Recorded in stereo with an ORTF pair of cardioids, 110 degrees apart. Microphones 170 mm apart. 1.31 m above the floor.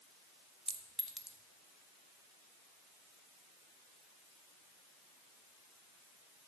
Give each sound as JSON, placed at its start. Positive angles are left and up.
{"t": 0.7, "sound": "a clink", "azimuth_deg": -5, "distance_m": 0.7}